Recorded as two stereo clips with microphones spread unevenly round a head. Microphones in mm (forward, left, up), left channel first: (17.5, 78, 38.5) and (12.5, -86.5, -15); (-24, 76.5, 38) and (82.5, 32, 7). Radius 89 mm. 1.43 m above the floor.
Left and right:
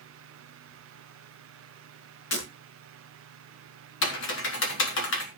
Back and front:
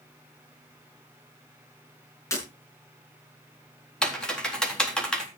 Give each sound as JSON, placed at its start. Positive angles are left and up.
{"t": 2.3, "sound": "breaking glass", "azimuth_deg": 95, "distance_m": 7.5}
{"t": 4.0, "sound": "typing on a keyboard", "azimuth_deg": 75, "distance_m": 3.5}